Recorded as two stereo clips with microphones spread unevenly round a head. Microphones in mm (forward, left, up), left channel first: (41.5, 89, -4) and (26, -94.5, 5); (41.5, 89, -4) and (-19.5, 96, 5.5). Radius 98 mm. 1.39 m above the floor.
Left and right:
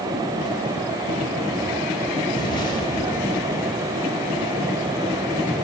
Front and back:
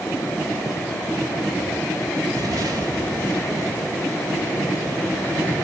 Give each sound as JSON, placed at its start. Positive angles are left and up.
{"t": 2.3, "sound": "an explosion", "azimuth_deg": 155, "distance_m": 2.0}